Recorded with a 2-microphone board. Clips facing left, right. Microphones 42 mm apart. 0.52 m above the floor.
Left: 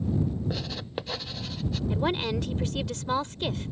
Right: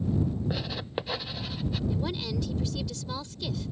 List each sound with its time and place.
0.5 s writing: 10° right (ahead or behind)
1.9 s a woman speaking: 45° left (ahead or behind)